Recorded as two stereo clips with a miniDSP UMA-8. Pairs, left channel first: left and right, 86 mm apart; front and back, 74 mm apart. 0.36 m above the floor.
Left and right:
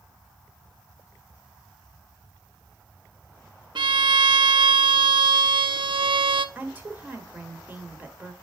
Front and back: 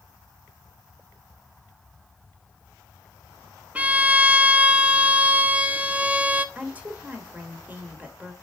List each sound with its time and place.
3.8 s a violin: 110° right, 0.5 m
6.5 s a woman speaking: 135° right, 1.2 m